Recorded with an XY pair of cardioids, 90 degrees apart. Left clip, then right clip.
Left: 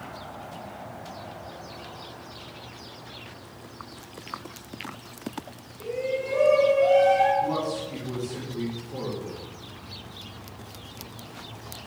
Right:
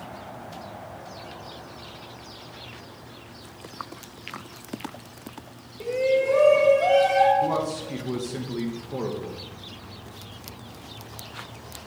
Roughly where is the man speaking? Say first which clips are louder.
Right 2 dB; ahead right.